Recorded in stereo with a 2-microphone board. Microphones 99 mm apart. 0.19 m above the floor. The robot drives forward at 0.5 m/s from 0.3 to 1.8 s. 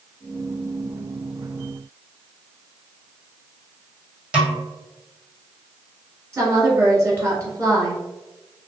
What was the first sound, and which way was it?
A snare drum, 10° right (ahead or behind).